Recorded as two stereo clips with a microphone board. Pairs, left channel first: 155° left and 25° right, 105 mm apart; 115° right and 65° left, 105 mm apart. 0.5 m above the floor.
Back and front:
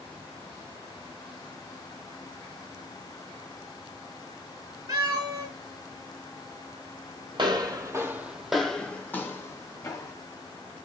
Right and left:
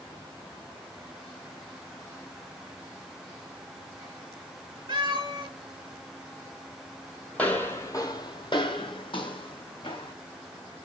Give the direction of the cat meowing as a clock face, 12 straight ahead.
11 o'clock.